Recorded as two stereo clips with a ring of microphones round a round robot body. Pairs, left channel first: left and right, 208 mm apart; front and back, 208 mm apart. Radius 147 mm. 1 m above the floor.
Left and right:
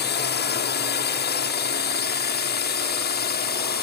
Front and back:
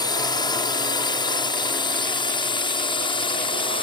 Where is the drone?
65° left; by 3.8 s 60° left.